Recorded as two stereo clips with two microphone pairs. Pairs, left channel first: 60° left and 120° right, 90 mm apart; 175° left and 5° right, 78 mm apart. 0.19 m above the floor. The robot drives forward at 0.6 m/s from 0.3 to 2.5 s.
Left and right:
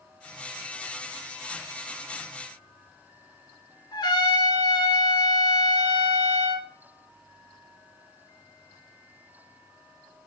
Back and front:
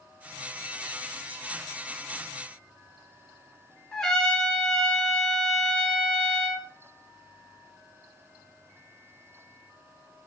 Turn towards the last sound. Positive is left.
turn(degrees=90)